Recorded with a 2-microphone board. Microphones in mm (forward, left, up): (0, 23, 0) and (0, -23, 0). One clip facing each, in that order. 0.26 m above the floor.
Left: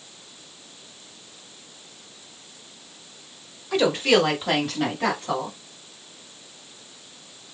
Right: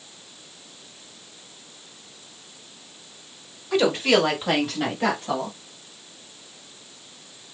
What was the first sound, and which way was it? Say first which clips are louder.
A woman speaking: even; 5° right (ahead or behind).